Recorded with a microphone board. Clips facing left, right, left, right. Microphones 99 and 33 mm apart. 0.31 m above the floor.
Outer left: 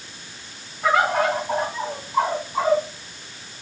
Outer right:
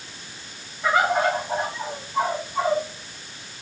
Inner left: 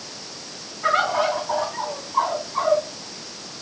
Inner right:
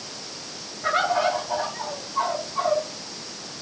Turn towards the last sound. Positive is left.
turn(degrees=60)  # may be behind; listen again after turning